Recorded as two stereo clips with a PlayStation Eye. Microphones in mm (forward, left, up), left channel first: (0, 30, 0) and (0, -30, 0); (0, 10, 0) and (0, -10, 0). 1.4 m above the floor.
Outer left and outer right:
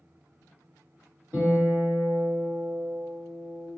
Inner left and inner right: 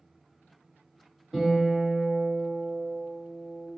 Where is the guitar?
30° right (ahead or behind), 2.0 m.